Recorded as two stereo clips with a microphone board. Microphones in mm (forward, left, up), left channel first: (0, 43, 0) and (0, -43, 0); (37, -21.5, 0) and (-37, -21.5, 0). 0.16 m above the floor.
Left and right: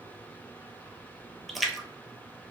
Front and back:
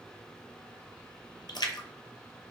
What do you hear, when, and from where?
1.5 s a splash: straight ahead, 0.6 m